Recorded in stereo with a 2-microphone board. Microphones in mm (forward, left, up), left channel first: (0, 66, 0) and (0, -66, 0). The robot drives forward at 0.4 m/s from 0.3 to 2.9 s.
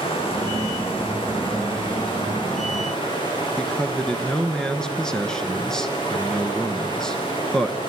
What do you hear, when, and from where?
0.0 s running water: 45° left (ahead or behind), 6 m; by 7.9 s 35° left (ahead or behind), 6.5 m
3.6 s a man speaking: 5° left (ahead or behind), 1.2 m